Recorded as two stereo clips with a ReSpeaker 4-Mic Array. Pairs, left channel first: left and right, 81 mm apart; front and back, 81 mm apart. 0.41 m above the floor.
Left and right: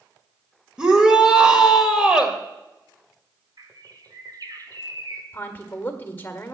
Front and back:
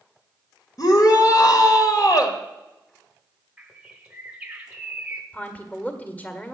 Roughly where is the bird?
Right.